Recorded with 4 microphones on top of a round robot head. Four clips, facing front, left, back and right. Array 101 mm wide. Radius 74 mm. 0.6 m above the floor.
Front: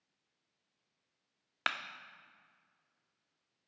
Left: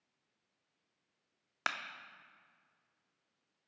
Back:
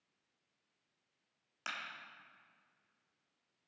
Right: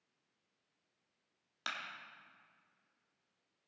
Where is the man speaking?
I don't hear a man speaking.